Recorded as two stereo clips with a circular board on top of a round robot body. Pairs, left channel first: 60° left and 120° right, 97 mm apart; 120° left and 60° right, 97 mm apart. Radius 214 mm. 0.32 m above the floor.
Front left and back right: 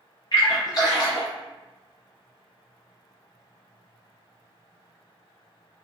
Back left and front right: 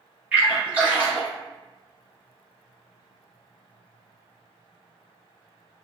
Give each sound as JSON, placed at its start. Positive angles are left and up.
{"t": 0.3, "sound": "a splash", "azimuth_deg": 15, "distance_m": 1.2}